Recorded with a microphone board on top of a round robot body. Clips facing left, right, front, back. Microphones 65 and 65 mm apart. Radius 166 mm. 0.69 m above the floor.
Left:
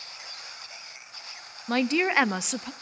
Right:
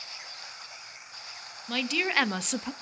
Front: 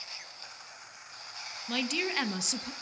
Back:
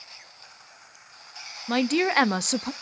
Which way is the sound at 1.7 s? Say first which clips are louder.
Left 5 dB, back 10 dB; 140° left.